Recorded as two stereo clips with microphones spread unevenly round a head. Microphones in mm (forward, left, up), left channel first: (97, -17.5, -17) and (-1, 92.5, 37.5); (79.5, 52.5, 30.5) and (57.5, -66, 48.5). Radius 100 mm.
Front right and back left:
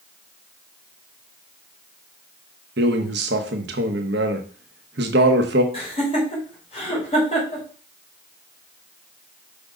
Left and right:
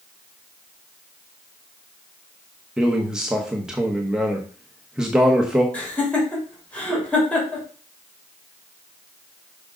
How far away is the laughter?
About 3.5 m.